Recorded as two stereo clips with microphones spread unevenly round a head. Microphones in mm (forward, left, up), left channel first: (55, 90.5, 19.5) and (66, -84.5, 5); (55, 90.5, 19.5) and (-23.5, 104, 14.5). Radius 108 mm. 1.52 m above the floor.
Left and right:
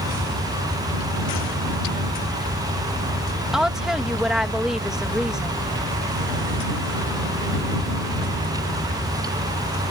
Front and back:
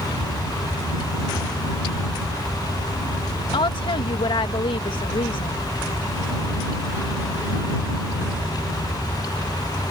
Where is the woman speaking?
Straight ahead.